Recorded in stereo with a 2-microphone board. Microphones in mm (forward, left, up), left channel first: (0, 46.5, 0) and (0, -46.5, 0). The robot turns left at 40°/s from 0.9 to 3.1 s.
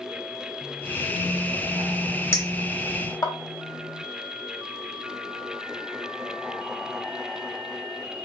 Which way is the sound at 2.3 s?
30° left (ahead or behind).